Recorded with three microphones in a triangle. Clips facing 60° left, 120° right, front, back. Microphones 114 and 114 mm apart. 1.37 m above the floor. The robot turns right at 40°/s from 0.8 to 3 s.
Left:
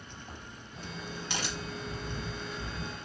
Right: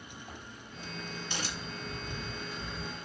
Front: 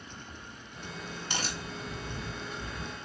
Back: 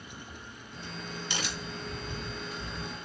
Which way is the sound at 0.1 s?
30° left.